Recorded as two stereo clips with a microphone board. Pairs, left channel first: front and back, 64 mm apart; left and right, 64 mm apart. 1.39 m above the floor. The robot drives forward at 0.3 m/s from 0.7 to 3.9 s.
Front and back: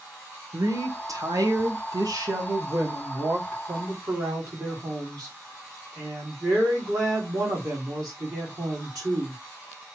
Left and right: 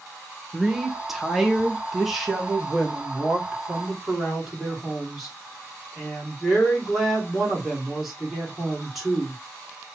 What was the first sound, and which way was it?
A woman speaking, 175° right.